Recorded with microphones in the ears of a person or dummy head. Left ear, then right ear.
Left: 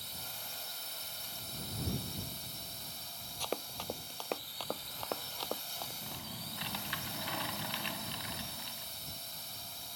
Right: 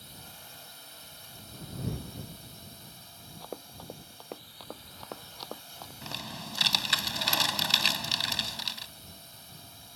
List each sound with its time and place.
0.0 s a drone: 30° left (ahead or behind)
3.4 s running footsteps: 50° left (ahead or behind); by 5.9 s 15° left (ahead or behind)
6.0 s typing on a keyboard: 85° right